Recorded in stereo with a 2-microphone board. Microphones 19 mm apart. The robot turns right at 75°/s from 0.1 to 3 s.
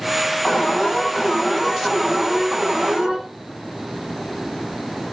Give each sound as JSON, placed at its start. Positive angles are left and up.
{"t": 0.5, "sound": "an alarm", "azimuth_deg": 85, "distance_m": 9.0}